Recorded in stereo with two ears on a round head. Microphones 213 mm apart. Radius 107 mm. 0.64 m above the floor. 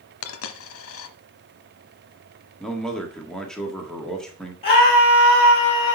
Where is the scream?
25° left (ahead or behind), 3 m.